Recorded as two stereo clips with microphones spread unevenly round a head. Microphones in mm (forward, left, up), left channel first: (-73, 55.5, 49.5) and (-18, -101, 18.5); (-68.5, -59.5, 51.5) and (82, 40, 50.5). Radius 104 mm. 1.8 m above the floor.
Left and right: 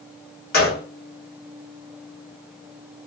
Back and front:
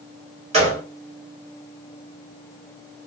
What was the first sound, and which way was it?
A gunshot, 90° left.